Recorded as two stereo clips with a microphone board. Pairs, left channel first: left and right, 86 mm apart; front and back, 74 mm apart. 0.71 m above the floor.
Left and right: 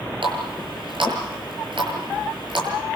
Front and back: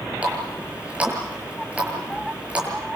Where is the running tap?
110° right, 8 m.